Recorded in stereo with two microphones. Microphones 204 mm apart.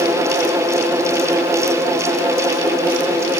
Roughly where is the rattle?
No rattle in this recording.